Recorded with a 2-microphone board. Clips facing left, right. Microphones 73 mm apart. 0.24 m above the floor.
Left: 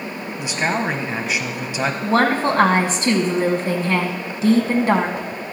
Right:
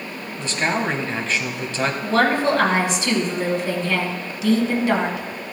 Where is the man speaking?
10° left (ahead or behind), 1.3 m.